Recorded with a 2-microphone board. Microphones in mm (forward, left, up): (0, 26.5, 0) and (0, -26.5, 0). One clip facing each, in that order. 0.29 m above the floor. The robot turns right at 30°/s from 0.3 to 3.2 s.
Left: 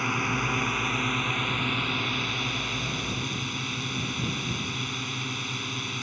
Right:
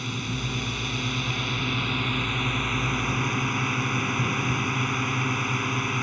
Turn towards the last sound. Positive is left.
turn(degrees=-140)